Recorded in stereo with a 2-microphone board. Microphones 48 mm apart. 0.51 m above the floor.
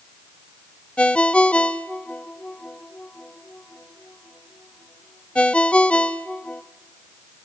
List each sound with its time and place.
1.0 s a ringtone: 25° left (ahead or behind), 0.9 m